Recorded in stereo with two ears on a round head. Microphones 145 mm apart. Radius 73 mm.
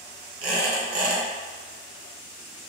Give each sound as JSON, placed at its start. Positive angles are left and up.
{"t": 0.4, "sound": "a squeak", "side_deg": -40, "distance_m": 1.3}